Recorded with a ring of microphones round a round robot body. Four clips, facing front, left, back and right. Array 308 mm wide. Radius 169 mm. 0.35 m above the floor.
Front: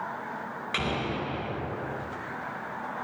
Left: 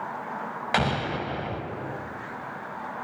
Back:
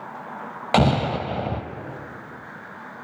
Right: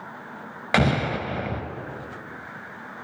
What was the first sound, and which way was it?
An explosion, 155° right.